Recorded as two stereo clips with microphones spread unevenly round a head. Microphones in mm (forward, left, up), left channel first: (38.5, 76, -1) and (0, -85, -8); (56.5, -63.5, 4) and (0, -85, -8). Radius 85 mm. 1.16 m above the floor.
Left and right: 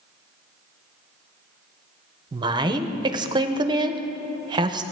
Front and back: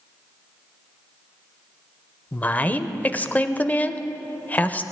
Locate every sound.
2.3 s a woman speaking: 50° right, 0.6 m